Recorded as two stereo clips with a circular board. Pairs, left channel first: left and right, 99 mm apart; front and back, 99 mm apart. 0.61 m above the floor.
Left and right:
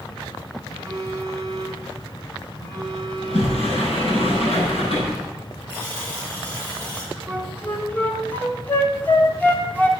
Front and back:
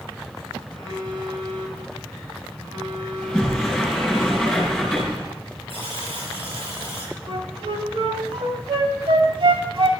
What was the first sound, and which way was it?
A phone buzzing, 155° left.